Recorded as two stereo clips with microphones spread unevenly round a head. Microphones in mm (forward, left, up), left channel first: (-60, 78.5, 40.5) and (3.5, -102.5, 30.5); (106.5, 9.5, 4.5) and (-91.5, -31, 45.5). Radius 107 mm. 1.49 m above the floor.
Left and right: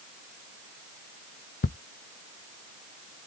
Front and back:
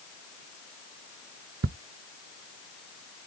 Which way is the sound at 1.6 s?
150° left.